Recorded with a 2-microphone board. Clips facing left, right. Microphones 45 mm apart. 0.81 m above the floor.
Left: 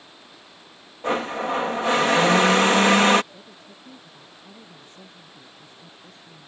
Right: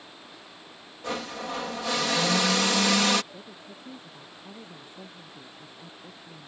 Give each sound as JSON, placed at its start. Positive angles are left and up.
{"t": 1.0, "sound": "a blender", "side_deg": 35}
{"t": 3.3, "sound": "a woman speaking", "side_deg": -10}